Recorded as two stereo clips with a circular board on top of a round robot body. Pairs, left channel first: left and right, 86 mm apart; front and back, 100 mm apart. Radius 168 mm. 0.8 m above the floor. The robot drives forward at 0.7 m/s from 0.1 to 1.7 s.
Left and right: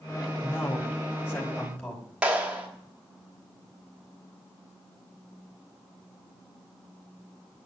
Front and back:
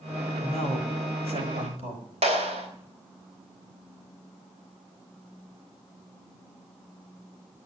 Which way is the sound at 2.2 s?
170° right.